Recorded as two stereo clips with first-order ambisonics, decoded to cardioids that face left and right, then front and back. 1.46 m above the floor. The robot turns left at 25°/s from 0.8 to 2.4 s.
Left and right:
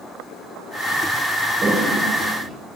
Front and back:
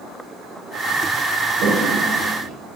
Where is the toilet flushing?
150° right, 1.2 m; by 2.5 s 170° right, 1.2 m.